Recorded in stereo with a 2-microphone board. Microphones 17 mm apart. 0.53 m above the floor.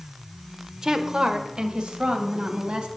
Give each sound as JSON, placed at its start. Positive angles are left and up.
{"t": 0.8, "sound": "a woman speaking", "side_deg": -40, "distance_m": 1.6}